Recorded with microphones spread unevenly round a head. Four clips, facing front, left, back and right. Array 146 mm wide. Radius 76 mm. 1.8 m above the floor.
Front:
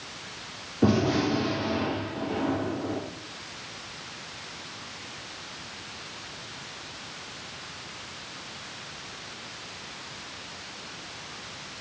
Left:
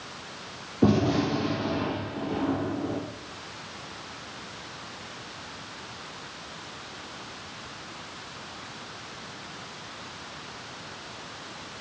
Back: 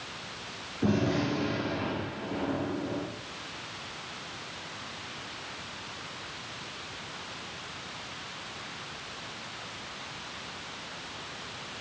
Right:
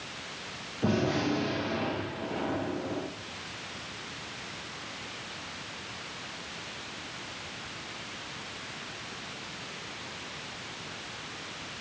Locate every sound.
0.8 s a gunshot: 60° left, 3 m